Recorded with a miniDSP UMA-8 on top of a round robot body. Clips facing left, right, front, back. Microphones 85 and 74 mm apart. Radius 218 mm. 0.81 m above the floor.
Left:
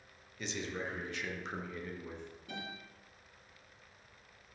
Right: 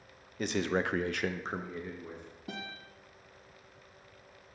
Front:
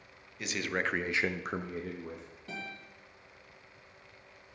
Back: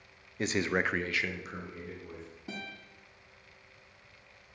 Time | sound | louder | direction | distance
0.4 | a man speaking | right 9 dB, back 4 dB | 130° right | 0.7 m
2.5 | a guitar | right 3 dB, front 1 dB | 100° right | 2.5 m